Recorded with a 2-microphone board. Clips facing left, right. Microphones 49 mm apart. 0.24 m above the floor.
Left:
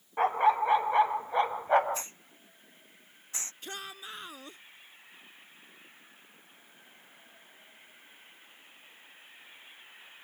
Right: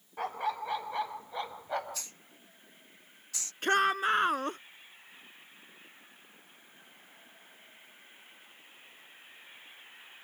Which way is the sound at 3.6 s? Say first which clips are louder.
Right 19 dB; 65° right (ahead or behind).